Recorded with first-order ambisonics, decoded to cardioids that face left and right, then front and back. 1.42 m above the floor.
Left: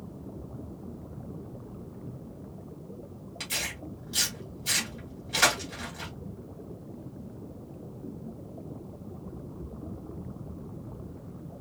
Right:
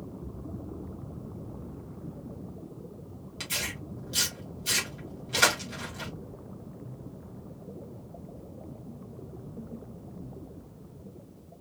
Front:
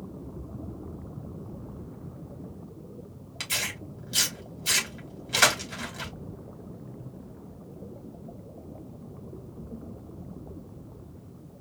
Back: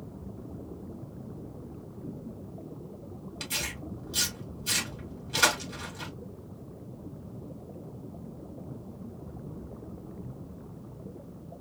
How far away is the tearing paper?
About 2.5 m.